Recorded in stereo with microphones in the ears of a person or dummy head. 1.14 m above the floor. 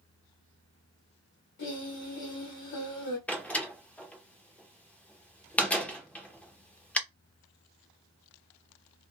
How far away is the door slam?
About 0.5 m.